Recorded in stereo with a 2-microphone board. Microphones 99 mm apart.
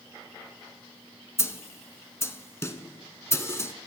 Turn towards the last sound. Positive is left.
turn(degrees=25)  # may be behind; listen again after turning